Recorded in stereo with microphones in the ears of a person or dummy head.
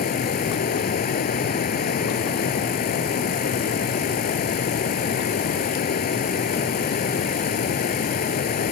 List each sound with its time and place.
0.0 s running water: 40° left (ahead or behind)